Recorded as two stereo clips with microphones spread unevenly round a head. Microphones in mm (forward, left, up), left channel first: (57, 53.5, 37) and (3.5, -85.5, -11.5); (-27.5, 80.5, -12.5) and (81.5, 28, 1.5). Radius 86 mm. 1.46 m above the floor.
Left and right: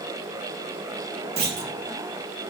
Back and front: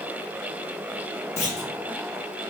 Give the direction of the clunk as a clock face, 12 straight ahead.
5 o'clock.